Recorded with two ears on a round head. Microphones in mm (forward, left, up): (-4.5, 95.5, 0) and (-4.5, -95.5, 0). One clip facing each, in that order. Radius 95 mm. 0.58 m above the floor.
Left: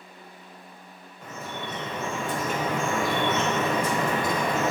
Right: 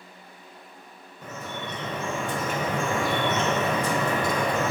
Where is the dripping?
80° right, 1.9 m.